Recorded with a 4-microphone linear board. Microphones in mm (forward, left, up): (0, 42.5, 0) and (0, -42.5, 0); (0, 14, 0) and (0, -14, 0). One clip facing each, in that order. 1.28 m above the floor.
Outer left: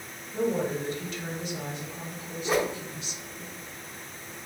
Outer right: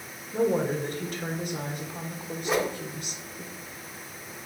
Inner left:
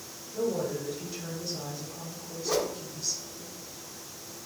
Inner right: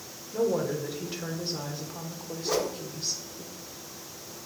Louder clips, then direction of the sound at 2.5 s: Even, even; centre (ahead or behind).